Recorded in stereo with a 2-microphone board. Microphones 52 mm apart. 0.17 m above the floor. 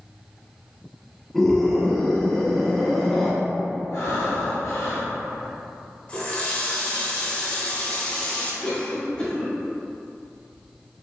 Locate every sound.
1.3 s a scream: 5° left (ahead or behind), 1.2 m
3.9 s breathing: 70° left (ahead or behind), 1.3 m
6.1 s a running tap: 25° left (ahead or behind), 0.8 m
8.6 s a cough: 20° left (ahead or behind), 1.3 m